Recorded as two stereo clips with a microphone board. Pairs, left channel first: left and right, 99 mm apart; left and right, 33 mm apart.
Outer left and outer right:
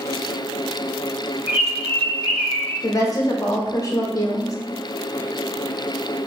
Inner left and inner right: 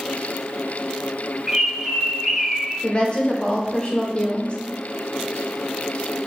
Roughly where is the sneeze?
I don't hear a sneeze.